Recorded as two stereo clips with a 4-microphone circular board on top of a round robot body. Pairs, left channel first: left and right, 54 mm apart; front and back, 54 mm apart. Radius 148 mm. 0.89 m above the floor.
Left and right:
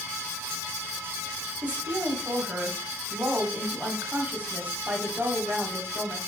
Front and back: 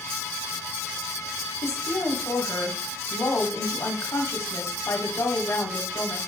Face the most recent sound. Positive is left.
turn(degrees=-35)